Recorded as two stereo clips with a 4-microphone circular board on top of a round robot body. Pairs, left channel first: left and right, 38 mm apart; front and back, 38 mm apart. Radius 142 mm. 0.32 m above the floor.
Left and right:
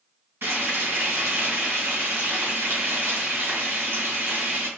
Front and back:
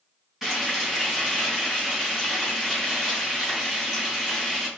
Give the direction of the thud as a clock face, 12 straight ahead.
No thud in this recording.